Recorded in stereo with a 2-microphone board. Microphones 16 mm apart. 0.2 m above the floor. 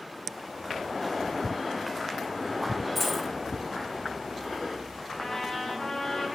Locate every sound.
3.0 s a dropped coin: 5° right (ahead or behind), 3 m
5.2 s a trumpet: 15° left (ahead or behind), 5 m